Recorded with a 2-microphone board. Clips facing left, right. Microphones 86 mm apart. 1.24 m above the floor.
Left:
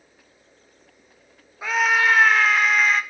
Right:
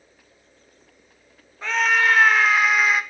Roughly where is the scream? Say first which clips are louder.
Even; centre.